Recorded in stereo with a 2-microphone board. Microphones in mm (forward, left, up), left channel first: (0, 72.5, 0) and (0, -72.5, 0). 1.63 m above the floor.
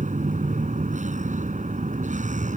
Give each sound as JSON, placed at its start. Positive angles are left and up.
{"t": 0.0, "sound": "a vehicle", "side_deg": -55}